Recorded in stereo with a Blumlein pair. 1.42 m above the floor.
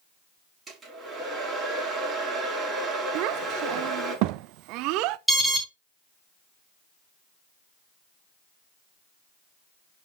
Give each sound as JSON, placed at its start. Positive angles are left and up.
{"t": 0.7, "sound": "a hair dryer", "azimuth_deg": -20, "distance_m": 5.5}
{"t": 3.1, "sound": "a child speaking", "azimuth_deg": -40, "distance_m": 0.6}
{"t": 5.3, "sound": "an alarm", "azimuth_deg": -5, "distance_m": 1.9}